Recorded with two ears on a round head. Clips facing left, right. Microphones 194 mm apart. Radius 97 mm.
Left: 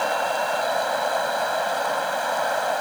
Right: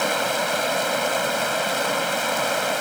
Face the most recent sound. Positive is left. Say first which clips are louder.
# even
turn(degrees=-40)  # may be behind; listen again after turning